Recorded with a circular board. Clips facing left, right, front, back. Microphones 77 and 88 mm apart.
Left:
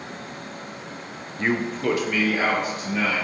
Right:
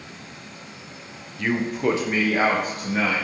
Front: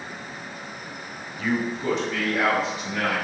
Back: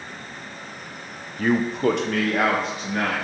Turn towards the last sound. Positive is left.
turn(degrees=-130)